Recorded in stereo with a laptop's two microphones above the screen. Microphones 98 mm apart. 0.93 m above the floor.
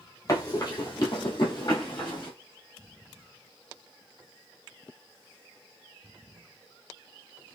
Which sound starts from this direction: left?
Running footsteps, at 0.3 s.